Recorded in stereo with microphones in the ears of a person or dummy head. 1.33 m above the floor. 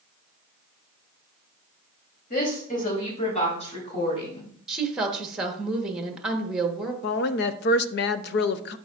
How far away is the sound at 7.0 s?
About 0.5 m.